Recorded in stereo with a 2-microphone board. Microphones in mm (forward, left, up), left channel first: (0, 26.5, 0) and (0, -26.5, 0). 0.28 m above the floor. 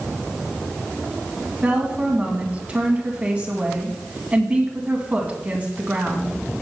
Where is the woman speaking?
25° right (ahead or behind), 2.5 m.